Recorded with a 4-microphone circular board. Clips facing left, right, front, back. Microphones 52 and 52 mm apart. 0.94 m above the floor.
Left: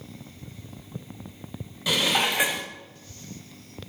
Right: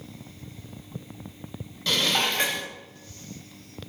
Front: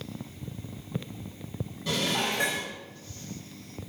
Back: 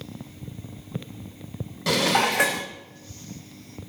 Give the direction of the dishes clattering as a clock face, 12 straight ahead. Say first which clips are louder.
Left 1 dB, back 7 dB; 6 o'clock.